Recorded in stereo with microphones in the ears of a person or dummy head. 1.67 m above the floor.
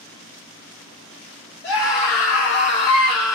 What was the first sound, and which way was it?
A scream, 60° left (ahead or behind).